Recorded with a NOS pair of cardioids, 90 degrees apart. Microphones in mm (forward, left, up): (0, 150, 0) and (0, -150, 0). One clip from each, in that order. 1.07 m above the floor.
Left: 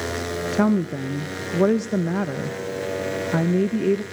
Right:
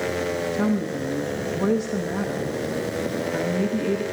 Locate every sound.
0.5 s a woman speaking: 55° left, 0.7 m